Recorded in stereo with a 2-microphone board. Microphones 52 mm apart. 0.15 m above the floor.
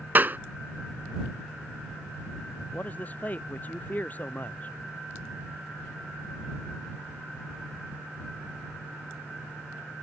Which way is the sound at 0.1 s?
40° right (ahead or behind).